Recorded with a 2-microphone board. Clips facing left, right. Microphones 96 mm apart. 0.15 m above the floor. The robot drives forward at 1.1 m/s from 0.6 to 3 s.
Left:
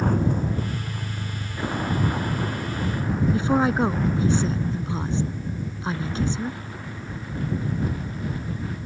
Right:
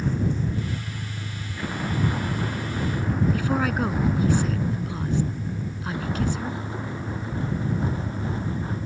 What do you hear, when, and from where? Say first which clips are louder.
0.0 s a vehicle: left 3 dB; 55° left (ahead or behind); by 8.9 s 30° right (ahead or behind)
3.3 s a woman speaking: left 3 dB; 25° left (ahead or behind)